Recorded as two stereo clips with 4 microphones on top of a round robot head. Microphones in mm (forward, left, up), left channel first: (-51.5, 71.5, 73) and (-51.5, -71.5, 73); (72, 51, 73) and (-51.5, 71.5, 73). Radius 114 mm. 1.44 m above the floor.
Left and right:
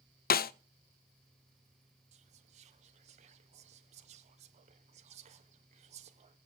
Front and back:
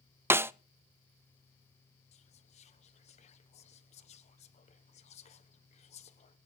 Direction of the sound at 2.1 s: 45° right.